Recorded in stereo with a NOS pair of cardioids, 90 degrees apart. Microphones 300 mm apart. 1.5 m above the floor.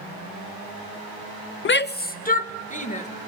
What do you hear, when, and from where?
1.6 s a shout: 40° left, 0.5 m; by 3.1 s 25° left, 2.0 m